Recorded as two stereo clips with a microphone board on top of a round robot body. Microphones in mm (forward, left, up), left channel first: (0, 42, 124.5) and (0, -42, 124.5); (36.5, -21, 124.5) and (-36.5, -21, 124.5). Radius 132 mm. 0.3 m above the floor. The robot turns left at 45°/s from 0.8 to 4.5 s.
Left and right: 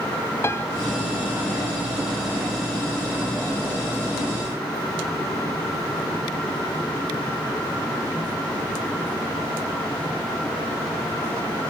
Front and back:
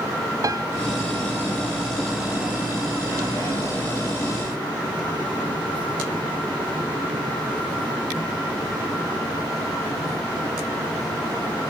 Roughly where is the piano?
Behind left.